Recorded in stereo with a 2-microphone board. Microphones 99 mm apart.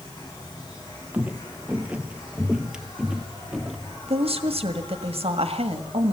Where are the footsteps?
15° right (ahead or behind), 1.3 m; by 4.0 s centre (ahead or behind), 1.8 m.